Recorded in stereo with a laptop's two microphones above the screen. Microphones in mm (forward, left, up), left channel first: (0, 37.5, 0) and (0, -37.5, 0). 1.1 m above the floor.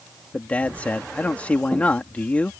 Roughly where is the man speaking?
Centre.